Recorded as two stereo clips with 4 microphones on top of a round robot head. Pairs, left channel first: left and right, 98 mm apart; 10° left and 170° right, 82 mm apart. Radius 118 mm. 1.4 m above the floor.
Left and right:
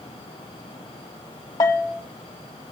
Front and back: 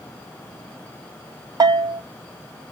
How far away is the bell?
About 0.5 m.